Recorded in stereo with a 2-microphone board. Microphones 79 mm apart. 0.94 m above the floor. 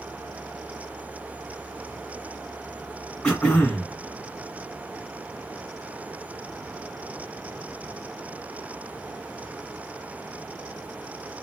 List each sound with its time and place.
3.2 s throat clearing: 15° left (ahead or behind), 1.2 m